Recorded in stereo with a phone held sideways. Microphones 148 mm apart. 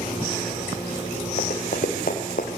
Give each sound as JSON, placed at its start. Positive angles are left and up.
{"t": 1.4, "sound": "running footsteps", "side_deg": 70, "distance_m": 4.0}